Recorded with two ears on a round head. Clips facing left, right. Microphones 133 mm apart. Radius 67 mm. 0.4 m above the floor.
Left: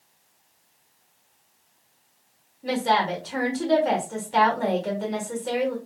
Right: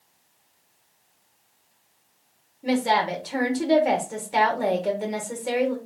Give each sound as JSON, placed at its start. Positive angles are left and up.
{"t": 2.6, "sound": "a woman speaking", "side_deg": -15, "distance_m": 1.4}